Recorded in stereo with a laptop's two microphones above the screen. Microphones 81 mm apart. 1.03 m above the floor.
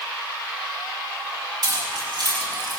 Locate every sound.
1.6 s keys jangling: 55° right (ahead or behind), 5.5 m; by 2.8 s 65° right (ahead or behind), 5 m